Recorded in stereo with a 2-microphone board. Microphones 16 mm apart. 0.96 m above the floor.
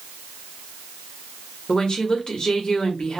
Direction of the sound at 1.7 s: 70° left (ahead or behind).